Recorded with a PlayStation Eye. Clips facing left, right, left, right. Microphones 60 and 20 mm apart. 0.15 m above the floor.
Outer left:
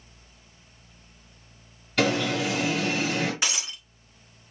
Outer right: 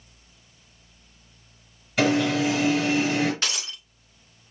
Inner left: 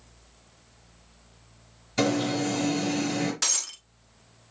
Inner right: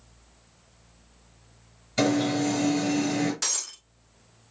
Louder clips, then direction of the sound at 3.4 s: Even, inner left 2 dB; 15° left (ahead or behind).